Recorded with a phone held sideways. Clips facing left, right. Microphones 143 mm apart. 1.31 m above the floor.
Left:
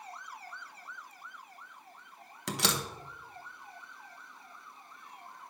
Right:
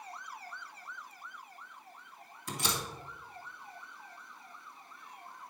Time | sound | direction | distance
2.5 | a door slam | 75° left (ahead or behind) | 1.0 m